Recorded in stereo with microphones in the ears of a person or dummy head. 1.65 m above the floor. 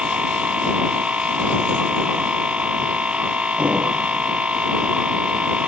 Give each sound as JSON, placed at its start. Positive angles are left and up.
{"t": 0.0, "sound": "a machine running", "side_deg": -5}